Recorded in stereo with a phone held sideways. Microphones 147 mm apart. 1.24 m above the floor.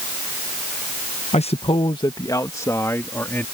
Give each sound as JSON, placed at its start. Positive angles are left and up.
{"t": 1.3, "sound": "a man speaking", "side_deg": 45}